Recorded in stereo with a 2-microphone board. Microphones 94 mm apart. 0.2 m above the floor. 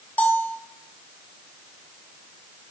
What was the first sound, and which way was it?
A bell, 15° left (ahead or behind).